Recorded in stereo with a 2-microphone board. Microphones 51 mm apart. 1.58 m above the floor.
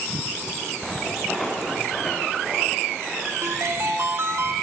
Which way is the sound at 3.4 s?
60° right (ahead or behind).